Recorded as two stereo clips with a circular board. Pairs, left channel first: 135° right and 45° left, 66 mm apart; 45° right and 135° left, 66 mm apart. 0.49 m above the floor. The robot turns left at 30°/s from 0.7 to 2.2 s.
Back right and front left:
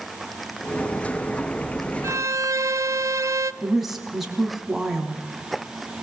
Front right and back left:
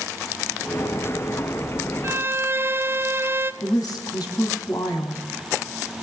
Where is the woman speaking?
40° right, 3.5 m.